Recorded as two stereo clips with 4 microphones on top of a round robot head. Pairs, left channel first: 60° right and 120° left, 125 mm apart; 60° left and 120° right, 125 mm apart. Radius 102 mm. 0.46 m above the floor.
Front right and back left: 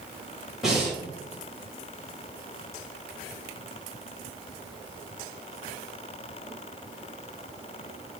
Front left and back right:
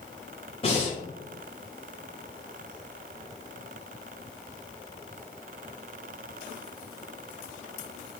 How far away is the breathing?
About 1.7 m.